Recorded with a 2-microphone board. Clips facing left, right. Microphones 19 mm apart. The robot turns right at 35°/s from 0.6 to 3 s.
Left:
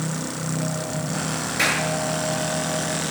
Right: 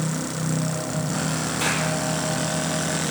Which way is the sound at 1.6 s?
80° left.